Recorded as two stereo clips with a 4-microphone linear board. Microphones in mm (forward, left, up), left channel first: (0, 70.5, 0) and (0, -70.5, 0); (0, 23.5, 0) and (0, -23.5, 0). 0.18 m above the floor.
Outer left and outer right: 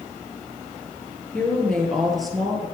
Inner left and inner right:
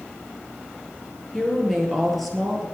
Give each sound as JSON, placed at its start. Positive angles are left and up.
{"t": 1.3, "sound": "a woman speaking", "side_deg": 10, "distance_m": 3.0}